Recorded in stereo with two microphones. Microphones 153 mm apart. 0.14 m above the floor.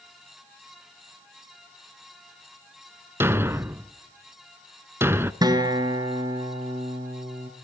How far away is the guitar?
About 1.7 m.